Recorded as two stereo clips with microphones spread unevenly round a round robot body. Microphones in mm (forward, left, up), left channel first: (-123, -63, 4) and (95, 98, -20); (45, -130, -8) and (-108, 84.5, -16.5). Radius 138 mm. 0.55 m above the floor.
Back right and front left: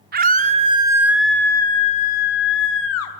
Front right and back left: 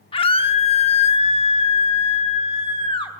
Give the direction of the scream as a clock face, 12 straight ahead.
12 o'clock.